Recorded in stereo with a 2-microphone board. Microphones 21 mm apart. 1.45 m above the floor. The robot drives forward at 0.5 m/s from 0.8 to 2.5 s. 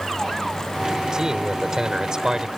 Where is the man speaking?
35° right (ahead or behind); by 2.5 s 30° right (ahead or behind).